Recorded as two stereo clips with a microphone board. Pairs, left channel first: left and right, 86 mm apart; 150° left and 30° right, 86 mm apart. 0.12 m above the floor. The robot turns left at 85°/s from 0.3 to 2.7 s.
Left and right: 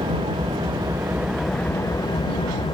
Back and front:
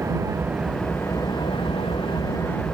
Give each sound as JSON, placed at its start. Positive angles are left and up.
{"t": 0.0, "sound": "an engine running", "azimuth_deg": -85}